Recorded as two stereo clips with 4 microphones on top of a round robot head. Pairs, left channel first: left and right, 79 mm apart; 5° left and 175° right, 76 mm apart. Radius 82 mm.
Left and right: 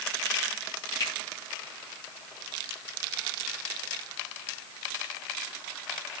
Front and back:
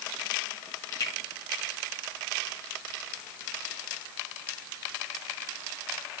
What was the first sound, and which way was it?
A finger snap, 50° left.